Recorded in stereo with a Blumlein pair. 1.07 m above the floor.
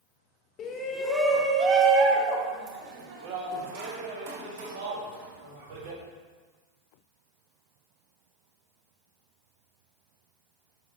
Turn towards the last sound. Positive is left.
turn(degrees=-55)